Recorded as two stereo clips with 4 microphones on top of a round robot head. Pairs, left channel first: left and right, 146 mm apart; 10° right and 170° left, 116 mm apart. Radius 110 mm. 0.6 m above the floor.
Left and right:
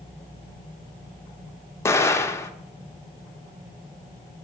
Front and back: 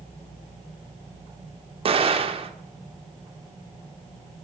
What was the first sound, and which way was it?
An explosion, 160° left.